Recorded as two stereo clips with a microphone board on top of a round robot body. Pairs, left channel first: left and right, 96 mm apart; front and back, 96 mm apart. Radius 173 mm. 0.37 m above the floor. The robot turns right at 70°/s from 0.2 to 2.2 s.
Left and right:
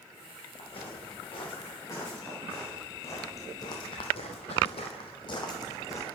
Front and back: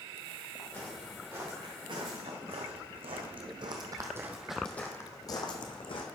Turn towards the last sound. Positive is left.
turn(degrees=35)